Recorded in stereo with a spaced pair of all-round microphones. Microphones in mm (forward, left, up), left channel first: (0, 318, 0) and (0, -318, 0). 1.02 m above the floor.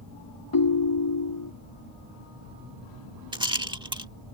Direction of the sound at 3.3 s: 5° right (ahead or behind).